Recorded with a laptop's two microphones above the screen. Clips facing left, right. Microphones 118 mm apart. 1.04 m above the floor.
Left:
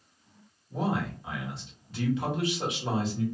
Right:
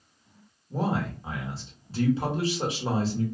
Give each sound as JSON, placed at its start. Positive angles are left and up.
{"t": 0.7, "sound": "a man speaking", "side_deg": -35, "distance_m": 1.2}